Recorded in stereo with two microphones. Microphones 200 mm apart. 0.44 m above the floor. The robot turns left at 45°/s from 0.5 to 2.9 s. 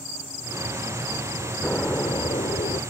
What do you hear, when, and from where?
1.6 s an explosion: 170° left; by 2.8 s 120° left